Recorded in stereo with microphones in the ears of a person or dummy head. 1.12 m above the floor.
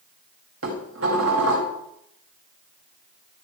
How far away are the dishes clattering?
About 3.5 m.